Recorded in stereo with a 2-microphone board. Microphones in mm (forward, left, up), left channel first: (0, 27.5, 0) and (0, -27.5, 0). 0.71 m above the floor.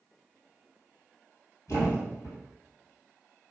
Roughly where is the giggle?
I don't hear a giggle.